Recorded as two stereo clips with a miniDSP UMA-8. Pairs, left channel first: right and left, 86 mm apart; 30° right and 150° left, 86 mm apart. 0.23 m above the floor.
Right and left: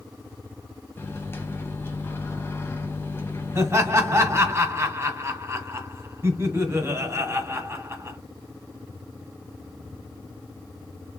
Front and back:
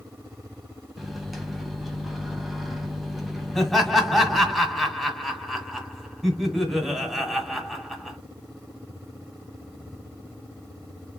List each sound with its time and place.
1.0 s a microwave: 120° right, 0.8 m
3.5 s laughter: 60° left, 1.5 m